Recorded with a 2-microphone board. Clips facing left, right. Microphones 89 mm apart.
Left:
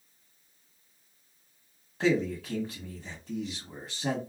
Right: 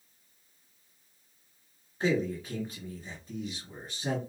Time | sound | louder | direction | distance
2.0 | a man speaking | left 2 dB | 90° left | 1.2 m